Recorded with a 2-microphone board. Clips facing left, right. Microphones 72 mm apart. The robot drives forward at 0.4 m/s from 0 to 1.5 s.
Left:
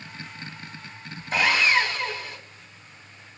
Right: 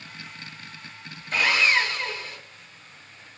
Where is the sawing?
20° left (ahead or behind), 2.5 m.